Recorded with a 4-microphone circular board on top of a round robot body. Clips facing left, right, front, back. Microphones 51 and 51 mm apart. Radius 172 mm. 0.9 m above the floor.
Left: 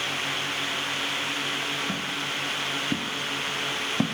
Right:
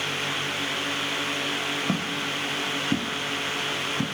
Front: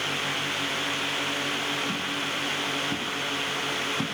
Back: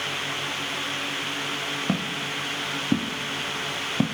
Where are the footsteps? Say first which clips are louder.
Right 2 dB, back 1 dB; 160° right, 2.5 m; by 4.1 s 130° left, 1.4 m.